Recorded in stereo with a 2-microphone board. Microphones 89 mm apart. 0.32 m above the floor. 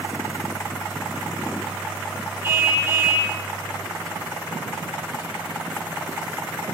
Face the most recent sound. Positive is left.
turn(degrees=-25)  # may be behind; listen again after turning